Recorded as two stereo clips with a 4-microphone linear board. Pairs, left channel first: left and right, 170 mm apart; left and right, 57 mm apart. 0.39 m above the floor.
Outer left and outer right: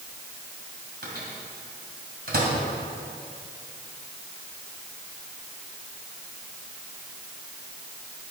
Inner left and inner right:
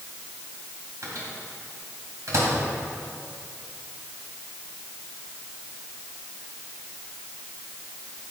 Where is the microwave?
65° right (ahead or behind), 2.5 m.